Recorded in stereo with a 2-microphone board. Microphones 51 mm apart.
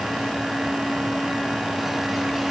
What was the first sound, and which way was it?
Only background noise.